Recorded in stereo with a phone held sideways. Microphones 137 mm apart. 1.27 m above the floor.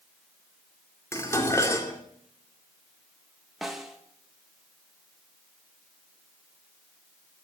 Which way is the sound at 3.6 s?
Centre (ahead or behind).